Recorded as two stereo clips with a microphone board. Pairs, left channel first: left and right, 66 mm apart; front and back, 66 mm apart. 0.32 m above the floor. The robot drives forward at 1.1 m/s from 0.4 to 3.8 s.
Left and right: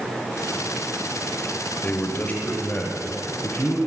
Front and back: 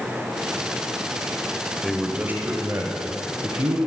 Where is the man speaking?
95° left, 1.0 m; by 3.8 s 170° left, 2.5 m.